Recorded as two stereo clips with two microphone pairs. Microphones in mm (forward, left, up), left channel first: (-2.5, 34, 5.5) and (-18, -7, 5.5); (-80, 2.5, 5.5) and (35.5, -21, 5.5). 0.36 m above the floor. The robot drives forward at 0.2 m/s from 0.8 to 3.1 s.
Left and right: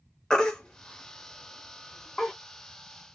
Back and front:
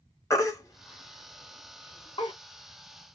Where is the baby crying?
130° left, 0.6 m; by 2.3 s 155° left, 0.8 m.